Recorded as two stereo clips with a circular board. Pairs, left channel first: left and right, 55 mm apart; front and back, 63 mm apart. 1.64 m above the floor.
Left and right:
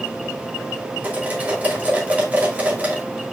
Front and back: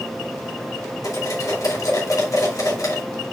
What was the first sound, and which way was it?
Cutlery clinking, 25° right.